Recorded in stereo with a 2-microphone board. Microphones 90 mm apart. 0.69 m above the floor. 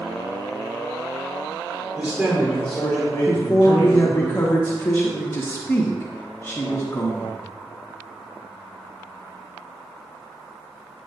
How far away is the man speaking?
About 1.7 m.